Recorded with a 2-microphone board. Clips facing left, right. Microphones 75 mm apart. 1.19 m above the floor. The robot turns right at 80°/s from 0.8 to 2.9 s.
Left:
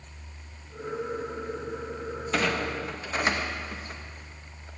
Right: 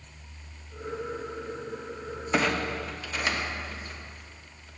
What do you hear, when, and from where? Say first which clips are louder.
2.3 s a clunk: right 1 dB; 15° right (ahead or behind), 0.8 m; by 4.7 s 30° left (ahead or behind), 0.8 m